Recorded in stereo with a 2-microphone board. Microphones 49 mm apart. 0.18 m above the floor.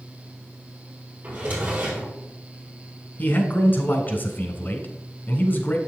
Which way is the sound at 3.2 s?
40° left (ahead or behind).